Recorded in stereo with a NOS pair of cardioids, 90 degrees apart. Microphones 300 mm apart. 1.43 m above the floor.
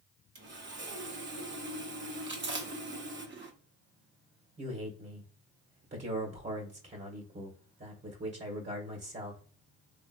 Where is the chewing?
40° right, 1.3 m.